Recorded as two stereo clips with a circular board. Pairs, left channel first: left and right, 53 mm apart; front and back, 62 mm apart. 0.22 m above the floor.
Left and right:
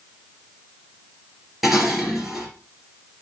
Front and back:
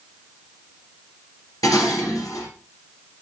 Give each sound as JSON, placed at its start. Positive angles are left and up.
{"t": 1.6, "sound": "dishes clattering", "azimuth_deg": -5, "distance_m": 3.0}